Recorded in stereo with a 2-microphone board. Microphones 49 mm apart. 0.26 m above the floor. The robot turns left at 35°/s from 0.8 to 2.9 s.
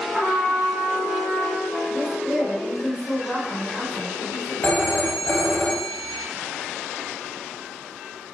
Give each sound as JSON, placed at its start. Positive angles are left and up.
{"t": 0.1, "sound": "a trumpet", "azimuth_deg": 170, "distance_m": 1.7}
{"t": 1.9, "sound": "a woman speaking", "azimuth_deg": 95, "distance_m": 2.0}
{"t": 4.6, "sound": "a phone ringing", "side_deg": 35, "distance_m": 0.7}